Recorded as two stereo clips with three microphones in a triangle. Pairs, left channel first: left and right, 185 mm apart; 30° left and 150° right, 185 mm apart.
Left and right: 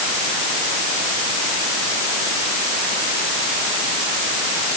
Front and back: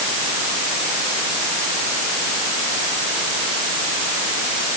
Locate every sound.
Only background noise.